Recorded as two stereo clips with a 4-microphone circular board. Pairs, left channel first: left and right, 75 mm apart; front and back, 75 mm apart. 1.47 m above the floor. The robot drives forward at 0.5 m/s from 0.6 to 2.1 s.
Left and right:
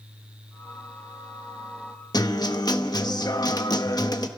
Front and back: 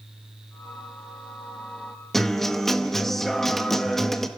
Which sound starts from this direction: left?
A guitar, at 2.1 s.